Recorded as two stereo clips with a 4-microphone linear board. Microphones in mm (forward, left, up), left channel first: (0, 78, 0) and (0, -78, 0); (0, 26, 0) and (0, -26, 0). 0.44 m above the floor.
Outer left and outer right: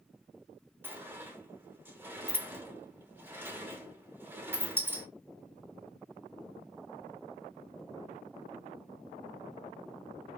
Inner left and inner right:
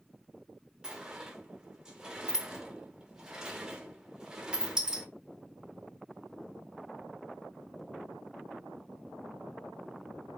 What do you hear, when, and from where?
0.8 s a sliding door: 15° right (ahead or behind), 0.9 m